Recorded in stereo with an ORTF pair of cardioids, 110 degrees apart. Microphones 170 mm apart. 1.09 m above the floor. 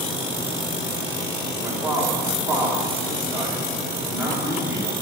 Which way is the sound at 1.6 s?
15° right.